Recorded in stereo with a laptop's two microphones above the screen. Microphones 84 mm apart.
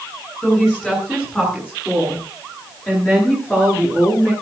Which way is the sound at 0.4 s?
10° left (ahead or behind).